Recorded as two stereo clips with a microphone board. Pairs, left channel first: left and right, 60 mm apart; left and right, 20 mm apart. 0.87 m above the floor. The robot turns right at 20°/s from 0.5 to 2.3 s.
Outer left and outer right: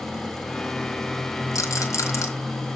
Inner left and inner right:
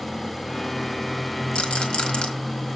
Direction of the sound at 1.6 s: 65° left (ahead or behind).